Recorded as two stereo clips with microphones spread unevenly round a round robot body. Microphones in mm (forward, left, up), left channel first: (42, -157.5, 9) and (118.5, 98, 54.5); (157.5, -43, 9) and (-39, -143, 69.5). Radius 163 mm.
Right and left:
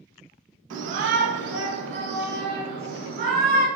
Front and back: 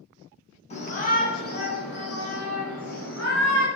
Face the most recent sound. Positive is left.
turn(degrees=15)